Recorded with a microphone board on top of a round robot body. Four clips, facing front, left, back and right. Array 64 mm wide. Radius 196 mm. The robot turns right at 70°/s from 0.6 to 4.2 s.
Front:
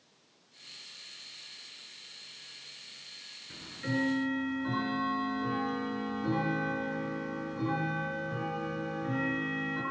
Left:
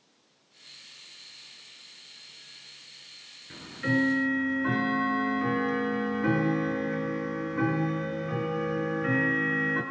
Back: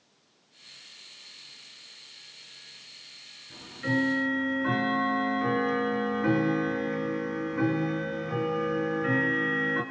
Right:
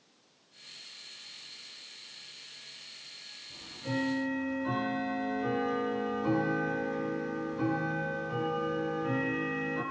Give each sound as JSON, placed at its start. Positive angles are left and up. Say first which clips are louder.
{"t": 3.5, "sound": "ticking", "louder": "left 8 dB, back 5 dB", "azimuth_deg": 75, "distance_m": 5.5}